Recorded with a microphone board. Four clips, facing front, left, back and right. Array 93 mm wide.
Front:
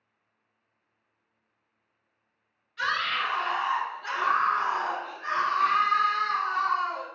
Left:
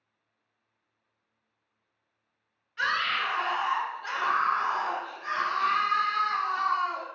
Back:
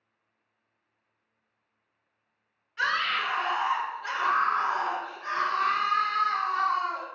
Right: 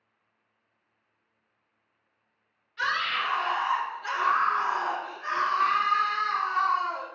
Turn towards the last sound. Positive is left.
turn(degrees=-50)